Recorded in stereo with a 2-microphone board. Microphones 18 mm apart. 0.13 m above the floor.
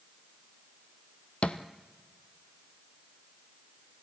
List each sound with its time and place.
1.4 s a thud: 75° left (ahead or behind), 1.0 m